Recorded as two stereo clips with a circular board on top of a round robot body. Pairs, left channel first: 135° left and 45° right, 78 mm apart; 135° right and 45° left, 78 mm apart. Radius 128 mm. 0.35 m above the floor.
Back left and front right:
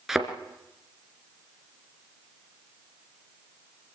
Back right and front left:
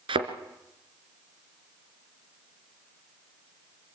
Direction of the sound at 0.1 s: 40° left.